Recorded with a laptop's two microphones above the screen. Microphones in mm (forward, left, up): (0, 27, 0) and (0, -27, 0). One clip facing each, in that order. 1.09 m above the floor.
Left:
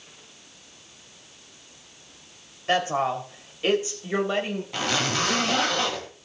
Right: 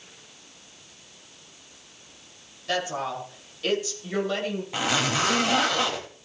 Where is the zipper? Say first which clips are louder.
Right 1 dB; 10° right (ahead or behind), 3 m.